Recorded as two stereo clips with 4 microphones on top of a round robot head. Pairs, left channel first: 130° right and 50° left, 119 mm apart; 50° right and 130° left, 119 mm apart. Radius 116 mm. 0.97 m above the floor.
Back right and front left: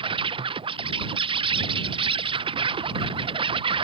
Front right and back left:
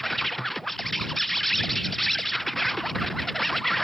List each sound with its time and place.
0.0 s an insect: 35° left